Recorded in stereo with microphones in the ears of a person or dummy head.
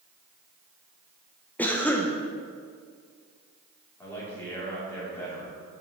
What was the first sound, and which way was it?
A cough, 10° left (ahead or behind).